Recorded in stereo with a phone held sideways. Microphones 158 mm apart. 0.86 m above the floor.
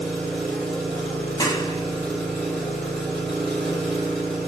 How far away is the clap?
About 0.6 m.